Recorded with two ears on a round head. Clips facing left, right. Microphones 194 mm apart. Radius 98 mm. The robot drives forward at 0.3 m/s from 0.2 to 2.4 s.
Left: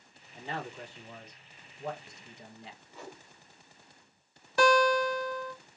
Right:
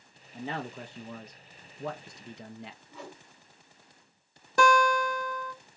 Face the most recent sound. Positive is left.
turn(degrees=-40)  # may be behind; listen again after turning